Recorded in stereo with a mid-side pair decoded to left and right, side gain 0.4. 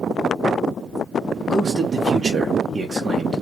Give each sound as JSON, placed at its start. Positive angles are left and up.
{"t": 1.5, "sound": "a man speaking", "azimuth_deg": -45, "distance_m": 1.0}